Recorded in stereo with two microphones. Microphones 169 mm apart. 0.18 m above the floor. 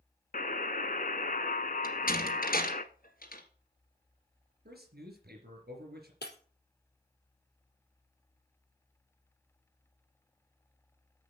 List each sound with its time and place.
0.3 s a buzzer: 55° left (ahead or behind), 0.7 m
1.8 s a door slam: 55° left (ahead or behind), 2.5 m
4.7 s a man speaking: 70° right (ahead or behind), 3.5 m
6.2 s breaking glass: 75° left (ahead or behind), 3 m